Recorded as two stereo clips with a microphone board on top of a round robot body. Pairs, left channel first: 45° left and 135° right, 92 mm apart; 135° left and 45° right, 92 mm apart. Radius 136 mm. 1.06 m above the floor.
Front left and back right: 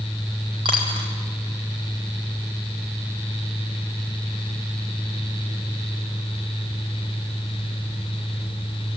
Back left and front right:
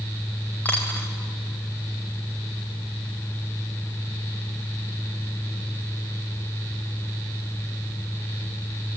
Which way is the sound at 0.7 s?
155° right.